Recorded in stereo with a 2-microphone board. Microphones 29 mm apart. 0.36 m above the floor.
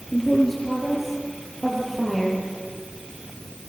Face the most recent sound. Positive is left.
turn(degrees=0)  # may be behind; listen again after turning